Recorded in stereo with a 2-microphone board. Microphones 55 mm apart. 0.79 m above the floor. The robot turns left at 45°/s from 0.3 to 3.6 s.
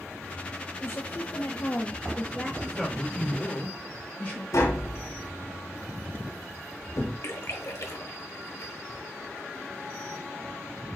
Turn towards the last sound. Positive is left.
turn(degrees=70)  # may be behind; listen again after turning